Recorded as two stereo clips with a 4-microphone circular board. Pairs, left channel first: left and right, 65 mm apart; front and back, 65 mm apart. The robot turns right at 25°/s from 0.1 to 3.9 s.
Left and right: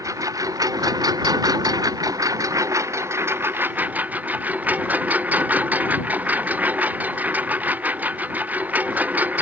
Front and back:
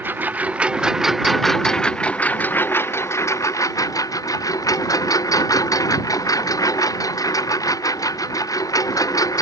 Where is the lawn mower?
120° right; by 9.4 s 25° right.